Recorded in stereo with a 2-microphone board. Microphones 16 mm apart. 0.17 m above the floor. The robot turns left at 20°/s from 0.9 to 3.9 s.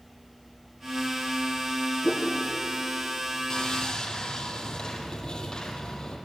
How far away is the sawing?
About 5.5 m.